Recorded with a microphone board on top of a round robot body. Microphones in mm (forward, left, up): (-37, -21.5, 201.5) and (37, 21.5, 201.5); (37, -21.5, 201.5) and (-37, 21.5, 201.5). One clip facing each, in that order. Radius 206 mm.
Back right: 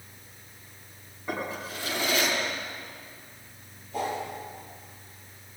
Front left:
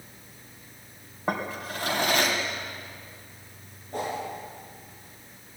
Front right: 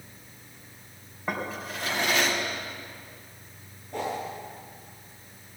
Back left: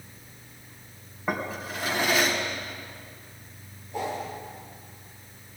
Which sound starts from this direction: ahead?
A whoosh, at 3.9 s.